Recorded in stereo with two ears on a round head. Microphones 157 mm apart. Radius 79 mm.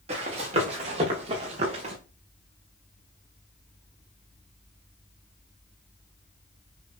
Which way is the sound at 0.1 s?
35° right (ahead or behind).